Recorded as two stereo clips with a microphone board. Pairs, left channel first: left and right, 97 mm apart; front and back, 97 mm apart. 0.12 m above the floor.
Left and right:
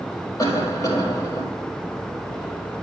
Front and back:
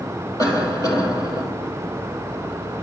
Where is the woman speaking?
No woman speaking in this recording.